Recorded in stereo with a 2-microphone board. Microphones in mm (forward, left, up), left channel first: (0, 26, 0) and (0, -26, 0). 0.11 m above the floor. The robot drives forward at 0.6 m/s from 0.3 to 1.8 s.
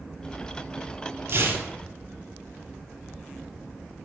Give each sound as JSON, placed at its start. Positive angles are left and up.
{"t": 1.3, "sound": "tearing paper", "side_deg": -50, "distance_m": 0.5}